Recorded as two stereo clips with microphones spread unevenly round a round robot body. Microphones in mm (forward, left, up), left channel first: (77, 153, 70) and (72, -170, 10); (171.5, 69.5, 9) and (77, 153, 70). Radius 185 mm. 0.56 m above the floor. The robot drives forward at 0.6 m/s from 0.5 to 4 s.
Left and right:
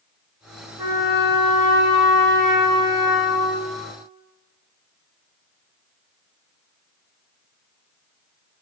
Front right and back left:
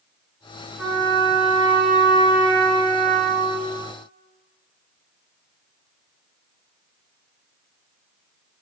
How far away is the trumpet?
About 1.0 m.